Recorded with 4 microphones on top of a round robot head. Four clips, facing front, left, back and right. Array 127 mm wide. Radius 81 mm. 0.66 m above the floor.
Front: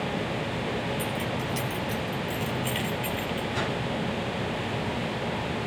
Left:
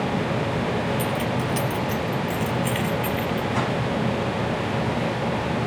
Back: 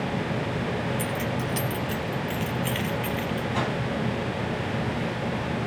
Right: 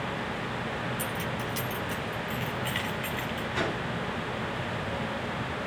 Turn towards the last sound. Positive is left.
turn(degrees=120)